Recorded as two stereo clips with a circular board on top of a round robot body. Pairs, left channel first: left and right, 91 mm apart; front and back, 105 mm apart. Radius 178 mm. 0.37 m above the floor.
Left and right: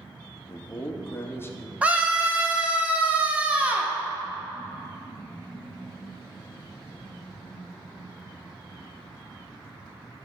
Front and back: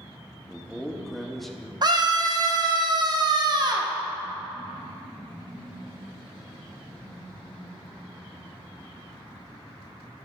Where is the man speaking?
85° left, 1.1 m.